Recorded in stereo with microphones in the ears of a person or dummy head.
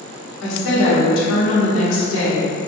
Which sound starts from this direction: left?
A woman speaking, at 0.4 s.